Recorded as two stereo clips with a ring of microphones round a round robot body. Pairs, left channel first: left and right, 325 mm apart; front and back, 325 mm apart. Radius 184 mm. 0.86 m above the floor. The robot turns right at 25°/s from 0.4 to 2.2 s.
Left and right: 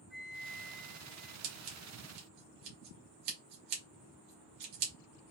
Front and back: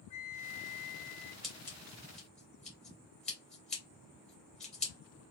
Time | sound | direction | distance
0.1 | a flute | 5° right | 0.6 m
1.4 | scissors | 110° right | 2 m